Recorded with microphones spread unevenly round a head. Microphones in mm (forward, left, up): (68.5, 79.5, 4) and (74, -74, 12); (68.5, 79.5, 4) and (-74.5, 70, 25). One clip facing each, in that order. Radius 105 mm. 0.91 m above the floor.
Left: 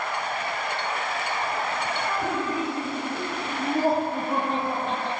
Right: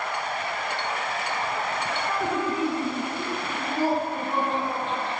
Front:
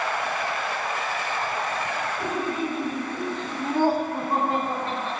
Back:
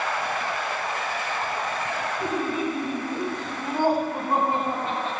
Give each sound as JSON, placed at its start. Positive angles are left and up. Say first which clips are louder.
{"t": 2.2, "sound": "laughter", "louder": "right 4 dB, back 1 dB", "azimuth_deg": 90, "distance_m": 7.0}